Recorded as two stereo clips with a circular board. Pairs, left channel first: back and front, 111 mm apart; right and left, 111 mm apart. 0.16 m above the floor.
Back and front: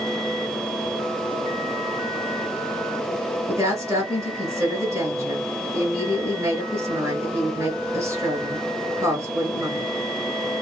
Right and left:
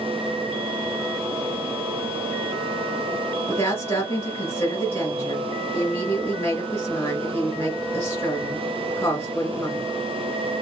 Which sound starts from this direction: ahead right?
A woman speaking, at 3.5 s.